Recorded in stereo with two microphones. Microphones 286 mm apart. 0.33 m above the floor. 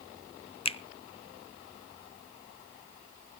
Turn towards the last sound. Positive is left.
turn(degrees=20)  # may be behind; listen again after turning